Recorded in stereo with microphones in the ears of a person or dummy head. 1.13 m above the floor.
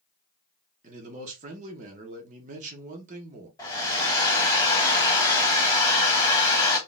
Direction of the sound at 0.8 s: 30° right (ahead or behind).